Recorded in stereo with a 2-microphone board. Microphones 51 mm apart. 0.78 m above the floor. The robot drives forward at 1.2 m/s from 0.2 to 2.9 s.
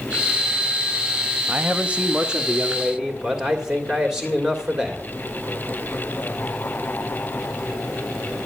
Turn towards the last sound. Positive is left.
turn(degrees=-15)  # may be behind; listen again after turning